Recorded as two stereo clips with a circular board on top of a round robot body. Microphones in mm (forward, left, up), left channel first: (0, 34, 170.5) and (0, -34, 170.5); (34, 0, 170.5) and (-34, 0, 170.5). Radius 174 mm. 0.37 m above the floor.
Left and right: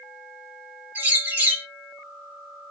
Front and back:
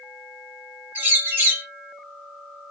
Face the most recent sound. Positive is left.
turn(degrees=-135)